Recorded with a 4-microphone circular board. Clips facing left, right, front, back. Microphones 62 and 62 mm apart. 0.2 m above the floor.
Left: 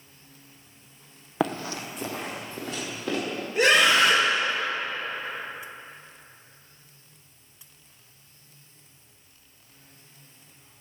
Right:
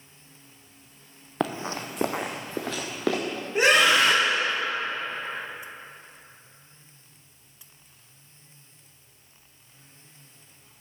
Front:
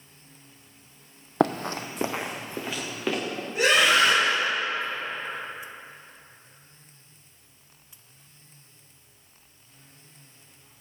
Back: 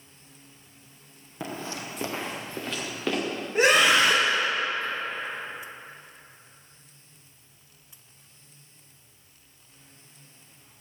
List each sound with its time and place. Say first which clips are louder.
1.4 s running footsteps: left 1 dB, front 10 dB; 5° left, 0.5 m; by 3.2 s 90° right, 2 m
3.5 s a scream: even, back 1 dB; 140° right, 2 m